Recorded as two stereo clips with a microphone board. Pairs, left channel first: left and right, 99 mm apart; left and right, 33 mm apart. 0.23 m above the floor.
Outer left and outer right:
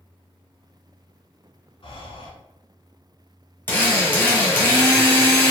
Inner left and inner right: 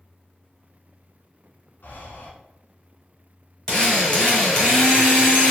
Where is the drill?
20° left (ahead or behind), 1.5 m.